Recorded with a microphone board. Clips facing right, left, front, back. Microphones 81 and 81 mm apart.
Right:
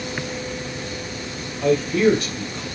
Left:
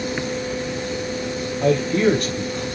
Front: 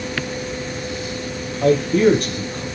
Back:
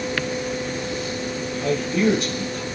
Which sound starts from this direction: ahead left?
A man speaking, at 1.6 s.